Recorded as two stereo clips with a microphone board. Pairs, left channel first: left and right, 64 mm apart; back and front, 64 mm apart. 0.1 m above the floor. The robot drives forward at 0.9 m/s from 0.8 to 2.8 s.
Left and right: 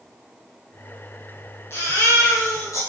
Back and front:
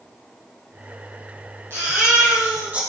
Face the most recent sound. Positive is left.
turn(degrees=65)